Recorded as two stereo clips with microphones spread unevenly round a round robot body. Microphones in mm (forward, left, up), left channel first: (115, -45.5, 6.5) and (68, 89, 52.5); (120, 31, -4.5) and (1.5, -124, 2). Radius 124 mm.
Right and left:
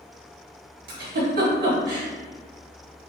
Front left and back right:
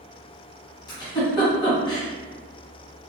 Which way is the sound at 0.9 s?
120° left.